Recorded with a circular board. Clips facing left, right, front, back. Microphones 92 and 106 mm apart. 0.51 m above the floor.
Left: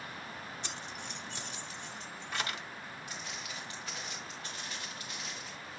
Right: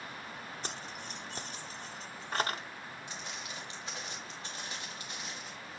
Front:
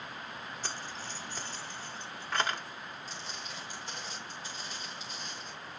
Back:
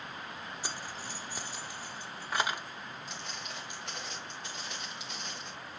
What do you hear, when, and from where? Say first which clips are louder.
0.6 s keys jangling: right 1 dB, even; 105° right, 0.8 m
3.1 s footsteps: right 1 dB, back 1 dB; 155° right, 3.5 m; by 5.5 s 160° right, 2 m